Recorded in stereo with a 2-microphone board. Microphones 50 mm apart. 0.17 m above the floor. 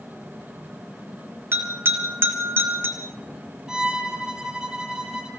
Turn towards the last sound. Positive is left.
turn(degrees=-15)  # may be behind; listen again after turning